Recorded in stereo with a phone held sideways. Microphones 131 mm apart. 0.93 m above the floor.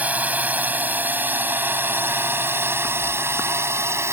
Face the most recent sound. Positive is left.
turn(degrees=-20)  # may be behind; listen again after turning